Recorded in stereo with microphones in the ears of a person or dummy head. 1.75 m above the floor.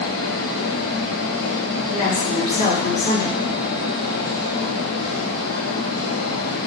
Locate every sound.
0.0 s a fan: 85° left, 1.6 m
1.9 s a woman speaking: 30° left (ahead or behind), 3 m